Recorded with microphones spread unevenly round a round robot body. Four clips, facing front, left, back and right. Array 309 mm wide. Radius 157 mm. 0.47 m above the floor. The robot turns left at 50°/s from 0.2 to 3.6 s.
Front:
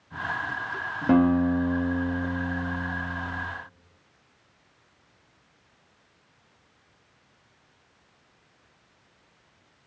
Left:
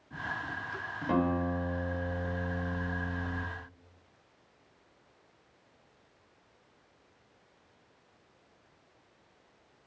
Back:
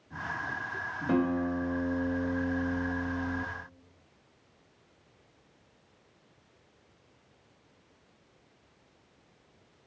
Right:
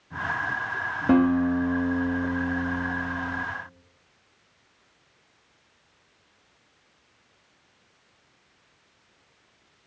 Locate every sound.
1.1 s a guitar: 45° right, 1.3 m; by 3.5 s 165° right, 1.3 m